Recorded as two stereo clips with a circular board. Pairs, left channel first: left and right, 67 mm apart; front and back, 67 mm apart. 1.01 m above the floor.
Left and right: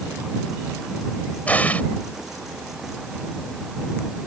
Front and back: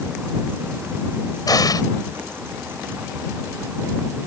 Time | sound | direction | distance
1.5 | an explosion | 20° left | ?